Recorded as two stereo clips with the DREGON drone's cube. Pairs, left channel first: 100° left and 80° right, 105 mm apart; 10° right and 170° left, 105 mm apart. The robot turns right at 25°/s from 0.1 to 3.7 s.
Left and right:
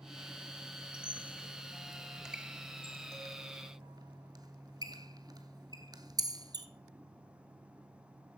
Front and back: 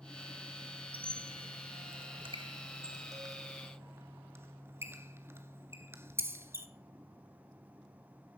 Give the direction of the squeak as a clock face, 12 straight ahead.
6 o'clock.